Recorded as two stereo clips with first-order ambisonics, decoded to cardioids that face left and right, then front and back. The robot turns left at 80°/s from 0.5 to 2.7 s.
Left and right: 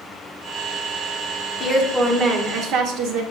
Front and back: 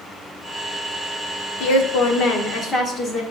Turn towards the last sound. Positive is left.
turn(degrees=-65)